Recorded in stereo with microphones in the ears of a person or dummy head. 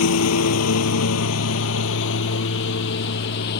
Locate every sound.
0.0 s a lawn mower: 75° left (ahead or behind); by 3.6 s 55° left (ahead or behind)